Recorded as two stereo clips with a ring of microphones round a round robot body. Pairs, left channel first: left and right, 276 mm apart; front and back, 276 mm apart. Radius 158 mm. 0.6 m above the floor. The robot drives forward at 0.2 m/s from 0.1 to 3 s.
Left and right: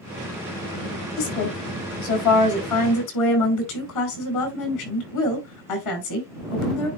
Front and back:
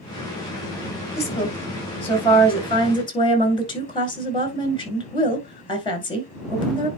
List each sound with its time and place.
1.2 s a woman speaking: 70° left, 4 m; by 6.9 s 75° left, 4 m